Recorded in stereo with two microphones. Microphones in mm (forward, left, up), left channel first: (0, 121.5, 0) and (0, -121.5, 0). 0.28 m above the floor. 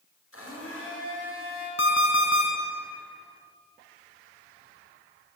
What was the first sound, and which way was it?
A blender, 65° left (ahead or behind).